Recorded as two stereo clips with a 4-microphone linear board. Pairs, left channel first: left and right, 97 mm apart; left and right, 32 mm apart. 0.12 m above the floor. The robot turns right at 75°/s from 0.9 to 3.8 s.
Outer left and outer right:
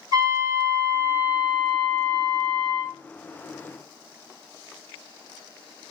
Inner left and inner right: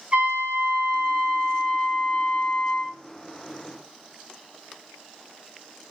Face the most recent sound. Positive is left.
turn(degrees=170)